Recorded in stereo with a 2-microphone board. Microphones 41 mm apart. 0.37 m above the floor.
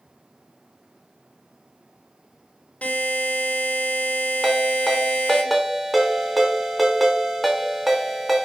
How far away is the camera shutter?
I don't hear a camera shutter.